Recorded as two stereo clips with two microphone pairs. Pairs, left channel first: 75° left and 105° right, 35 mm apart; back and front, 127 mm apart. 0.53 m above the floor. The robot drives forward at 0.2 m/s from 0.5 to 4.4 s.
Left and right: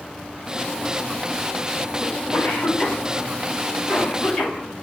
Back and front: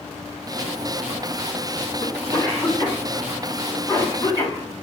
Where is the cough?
115° left, 4 m; by 4.8 s 120° left, 4 m.